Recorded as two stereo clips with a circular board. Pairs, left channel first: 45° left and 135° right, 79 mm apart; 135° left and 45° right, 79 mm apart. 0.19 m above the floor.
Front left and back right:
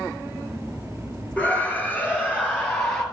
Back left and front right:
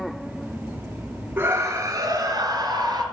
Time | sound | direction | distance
1.4 | a scream | 10° right | 1.6 m